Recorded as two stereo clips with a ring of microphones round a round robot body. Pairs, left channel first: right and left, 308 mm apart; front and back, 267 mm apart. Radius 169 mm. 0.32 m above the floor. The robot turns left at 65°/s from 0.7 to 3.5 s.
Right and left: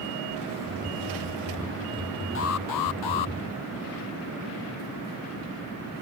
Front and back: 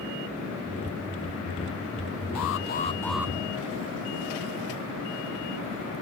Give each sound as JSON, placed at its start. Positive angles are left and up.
{"t": 2.4, "sound": "an alarm", "azimuth_deg": -40}